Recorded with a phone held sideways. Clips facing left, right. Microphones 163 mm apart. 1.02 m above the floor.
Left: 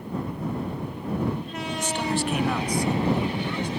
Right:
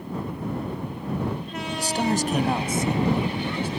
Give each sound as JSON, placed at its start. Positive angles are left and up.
{"t": 1.8, "sound": "a man speaking", "side_deg": -35}